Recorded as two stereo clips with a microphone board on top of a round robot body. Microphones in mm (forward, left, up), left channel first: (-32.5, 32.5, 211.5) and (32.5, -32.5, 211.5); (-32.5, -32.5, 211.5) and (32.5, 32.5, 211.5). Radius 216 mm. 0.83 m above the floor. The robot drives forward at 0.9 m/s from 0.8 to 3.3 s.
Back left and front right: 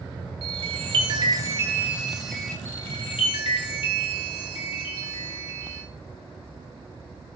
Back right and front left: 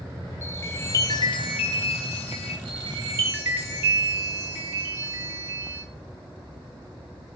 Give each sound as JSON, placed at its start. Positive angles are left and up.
{"t": 0.4, "sound": "a chime", "azimuth_deg": -70, "distance_m": 1.0}
{"t": 2.6, "sound": "a chime", "azimuth_deg": 65, "distance_m": 0.8}